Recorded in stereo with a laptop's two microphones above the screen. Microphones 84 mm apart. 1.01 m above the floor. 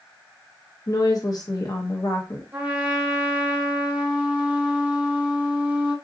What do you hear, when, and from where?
0.9 s a woman speaking: 45° left (ahead or behind), 0.6 m
2.5 s a trumpet: 20° right (ahead or behind), 1.0 m